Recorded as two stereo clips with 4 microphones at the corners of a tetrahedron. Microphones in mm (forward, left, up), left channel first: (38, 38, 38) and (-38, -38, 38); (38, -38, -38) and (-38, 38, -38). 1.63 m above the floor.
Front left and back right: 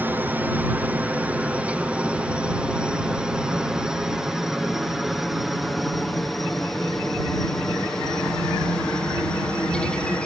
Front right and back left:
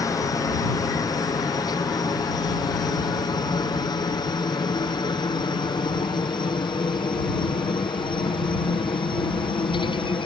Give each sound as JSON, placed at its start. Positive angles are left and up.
{"t": 0.0, "sound": "a helicopter", "azimuth_deg": -75}